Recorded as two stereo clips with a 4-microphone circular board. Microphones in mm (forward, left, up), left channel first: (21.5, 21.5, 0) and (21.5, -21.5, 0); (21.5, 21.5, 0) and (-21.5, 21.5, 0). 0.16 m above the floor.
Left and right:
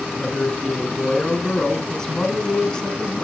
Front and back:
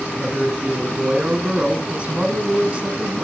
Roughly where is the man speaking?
Behind left.